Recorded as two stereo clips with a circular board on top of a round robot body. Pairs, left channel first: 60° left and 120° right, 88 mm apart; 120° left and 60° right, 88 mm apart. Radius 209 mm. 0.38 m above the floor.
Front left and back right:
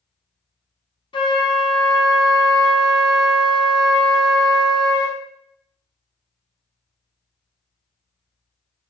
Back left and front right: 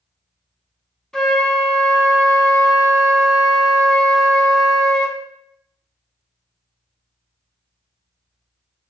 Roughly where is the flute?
Ahead left.